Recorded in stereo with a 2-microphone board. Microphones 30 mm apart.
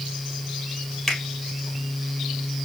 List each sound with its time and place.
1.1 s a finger snap: 10° left (ahead or behind), 2.5 m